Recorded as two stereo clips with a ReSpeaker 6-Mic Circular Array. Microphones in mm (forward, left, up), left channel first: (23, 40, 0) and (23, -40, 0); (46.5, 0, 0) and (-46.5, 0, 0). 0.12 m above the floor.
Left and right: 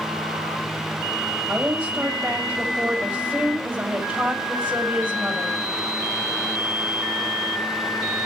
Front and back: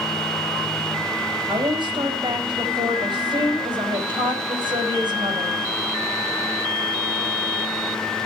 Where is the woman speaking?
160° right, 4.5 m.